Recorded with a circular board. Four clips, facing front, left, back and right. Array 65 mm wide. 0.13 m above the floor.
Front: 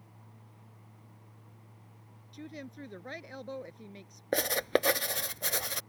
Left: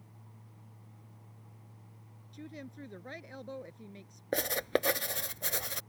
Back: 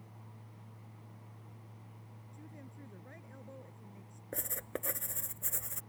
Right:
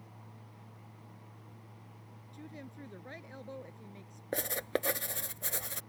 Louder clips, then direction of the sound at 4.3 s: Left 3 dB, front 14 dB; 15° left.